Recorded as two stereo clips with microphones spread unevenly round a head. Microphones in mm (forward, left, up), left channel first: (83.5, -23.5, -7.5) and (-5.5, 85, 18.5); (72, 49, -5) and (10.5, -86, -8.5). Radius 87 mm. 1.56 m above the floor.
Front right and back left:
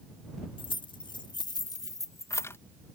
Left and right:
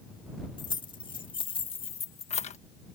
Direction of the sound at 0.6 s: 5° left.